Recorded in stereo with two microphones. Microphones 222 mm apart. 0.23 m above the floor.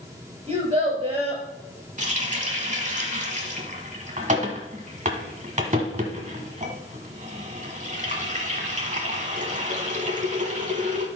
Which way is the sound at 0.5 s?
25° right (ahead or behind).